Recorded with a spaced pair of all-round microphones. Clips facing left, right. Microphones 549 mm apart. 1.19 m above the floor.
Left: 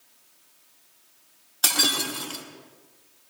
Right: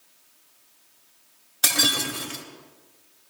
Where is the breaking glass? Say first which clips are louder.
Right 1 dB; 45° right (ahead or behind), 1.4 m.